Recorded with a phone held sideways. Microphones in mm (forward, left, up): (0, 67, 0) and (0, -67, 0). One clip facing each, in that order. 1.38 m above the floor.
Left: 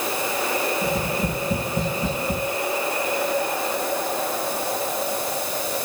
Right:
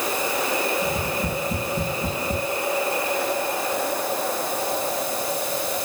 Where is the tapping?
70° left (ahead or behind), 9.5 m.